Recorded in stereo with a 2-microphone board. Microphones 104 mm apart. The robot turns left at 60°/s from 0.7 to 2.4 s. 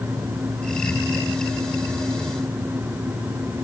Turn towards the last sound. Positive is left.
No sound to turn to.